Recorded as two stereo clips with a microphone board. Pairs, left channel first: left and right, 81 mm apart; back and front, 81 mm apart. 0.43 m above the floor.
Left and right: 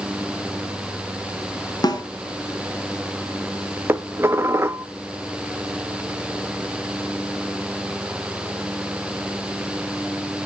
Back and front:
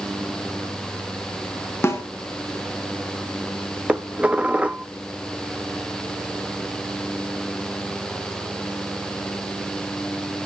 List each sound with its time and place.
1.8 s a snare drum: 120° left, 1.8 m
3.9 s dishes clattering: 65° right, 0.8 m